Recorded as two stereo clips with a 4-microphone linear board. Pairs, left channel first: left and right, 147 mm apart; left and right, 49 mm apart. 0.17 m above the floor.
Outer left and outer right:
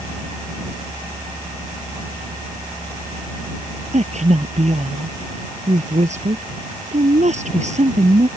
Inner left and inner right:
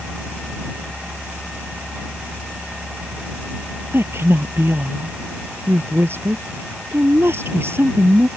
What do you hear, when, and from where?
3.9 s a woman speaking: 50° right (ahead or behind)